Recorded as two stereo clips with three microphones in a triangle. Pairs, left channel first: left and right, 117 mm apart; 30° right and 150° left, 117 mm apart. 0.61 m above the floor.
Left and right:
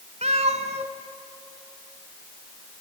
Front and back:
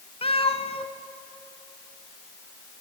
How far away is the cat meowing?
About 1.7 m.